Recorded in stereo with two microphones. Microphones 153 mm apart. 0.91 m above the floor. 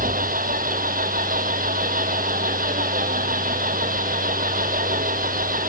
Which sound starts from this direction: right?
An engine running, at 0.0 s.